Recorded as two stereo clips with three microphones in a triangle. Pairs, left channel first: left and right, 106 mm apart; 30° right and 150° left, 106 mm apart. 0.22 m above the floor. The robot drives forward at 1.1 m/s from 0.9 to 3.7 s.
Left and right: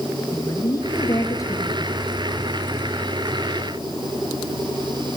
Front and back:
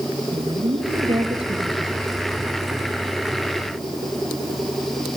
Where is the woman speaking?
140° left, 3.5 m; by 2.0 s 150° left, 4.5 m.